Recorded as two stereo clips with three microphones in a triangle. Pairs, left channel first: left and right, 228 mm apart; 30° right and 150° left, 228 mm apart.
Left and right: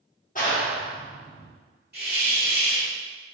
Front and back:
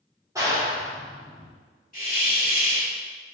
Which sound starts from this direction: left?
A clap, at 0.3 s.